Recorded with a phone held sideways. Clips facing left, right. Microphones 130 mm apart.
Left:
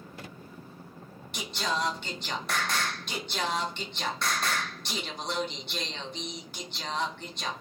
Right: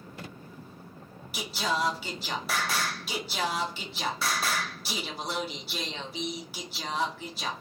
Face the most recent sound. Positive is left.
turn(degrees=-5)  # may be behind; listen again after turning